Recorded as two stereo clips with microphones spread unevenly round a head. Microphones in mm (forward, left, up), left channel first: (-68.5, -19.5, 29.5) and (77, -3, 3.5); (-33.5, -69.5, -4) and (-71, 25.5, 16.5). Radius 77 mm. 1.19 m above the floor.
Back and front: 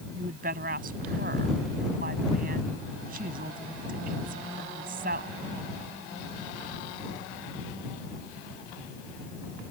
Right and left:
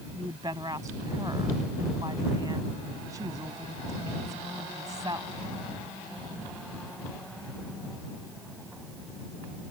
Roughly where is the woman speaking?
Ahead left.